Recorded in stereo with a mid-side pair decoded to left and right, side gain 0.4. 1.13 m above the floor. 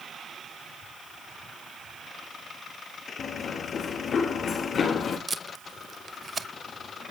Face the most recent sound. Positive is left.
turn(degrees=-40)